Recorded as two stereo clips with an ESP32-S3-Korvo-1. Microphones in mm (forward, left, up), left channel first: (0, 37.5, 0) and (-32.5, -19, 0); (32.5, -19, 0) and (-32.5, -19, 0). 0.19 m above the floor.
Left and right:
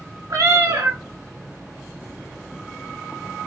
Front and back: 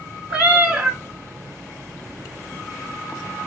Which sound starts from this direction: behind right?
A cat meowing, at 0.3 s.